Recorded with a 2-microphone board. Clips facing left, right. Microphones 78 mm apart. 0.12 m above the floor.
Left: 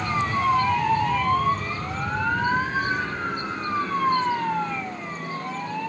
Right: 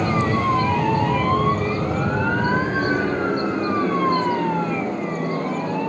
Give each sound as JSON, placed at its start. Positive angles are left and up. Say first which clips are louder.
{"t": 0.0, "sound": "an aircraft", "louder": "right 3 dB", "side_deg": -55}